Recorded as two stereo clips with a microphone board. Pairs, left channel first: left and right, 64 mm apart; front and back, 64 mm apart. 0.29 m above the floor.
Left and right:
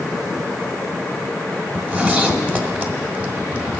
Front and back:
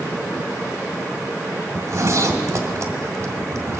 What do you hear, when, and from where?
1.7 s a zipper: 155° right, 1.1 m